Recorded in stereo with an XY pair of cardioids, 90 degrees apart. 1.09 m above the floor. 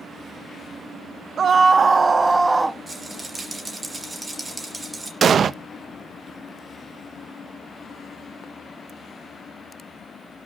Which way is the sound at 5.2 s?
50° right.